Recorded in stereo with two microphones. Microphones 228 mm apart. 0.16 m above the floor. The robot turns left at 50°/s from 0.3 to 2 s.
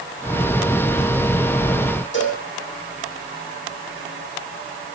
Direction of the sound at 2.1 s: 55° left (ahead or behind).